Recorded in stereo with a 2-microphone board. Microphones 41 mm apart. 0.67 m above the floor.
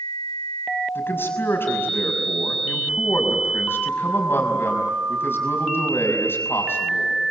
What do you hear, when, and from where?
0.9 s a man speaking: 65° left (ahead or behind), 5.5 m